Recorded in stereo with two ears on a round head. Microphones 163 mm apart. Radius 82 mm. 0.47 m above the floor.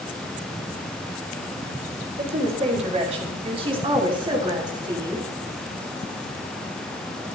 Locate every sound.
2.2 s a woman speaking: 40° right (ahead or behind), 4.5 m; by 5.3 s 20° right (ahead or behind), 3.5 m